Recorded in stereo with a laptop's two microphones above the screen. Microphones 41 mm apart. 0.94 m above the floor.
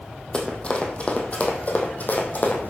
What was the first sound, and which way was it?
Running footsteps, 20° left (ahead or behind).